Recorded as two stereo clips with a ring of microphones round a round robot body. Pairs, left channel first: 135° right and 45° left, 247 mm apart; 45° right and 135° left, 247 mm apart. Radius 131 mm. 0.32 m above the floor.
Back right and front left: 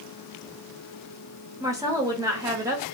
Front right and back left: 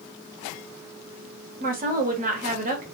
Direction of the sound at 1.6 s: 110° left.